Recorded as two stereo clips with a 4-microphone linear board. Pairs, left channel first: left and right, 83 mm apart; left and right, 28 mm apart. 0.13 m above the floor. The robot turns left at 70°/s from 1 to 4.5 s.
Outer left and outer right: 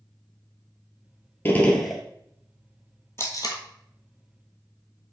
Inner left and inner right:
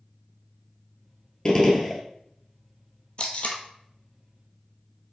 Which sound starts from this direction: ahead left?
A gunshot, at 1.4 s.